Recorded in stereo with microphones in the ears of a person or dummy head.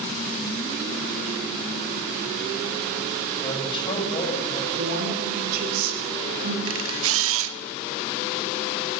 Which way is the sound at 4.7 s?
60° right (ahead or behind).